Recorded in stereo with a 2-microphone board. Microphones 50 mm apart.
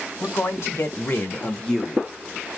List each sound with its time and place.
0.2 s a man speaking: 70° left (ahead or behind), 2.5 m; by 2.1 s 10° right (ahead or behind), 1.2 m